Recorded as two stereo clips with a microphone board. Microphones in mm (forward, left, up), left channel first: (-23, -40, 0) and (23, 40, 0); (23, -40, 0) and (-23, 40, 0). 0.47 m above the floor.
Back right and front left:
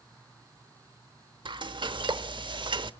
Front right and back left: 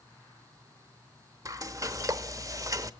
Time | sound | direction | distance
1.4 | frying | 70° left | 0.8 m